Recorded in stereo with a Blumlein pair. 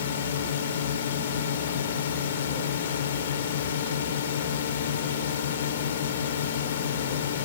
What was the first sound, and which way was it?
A drone, 60° left.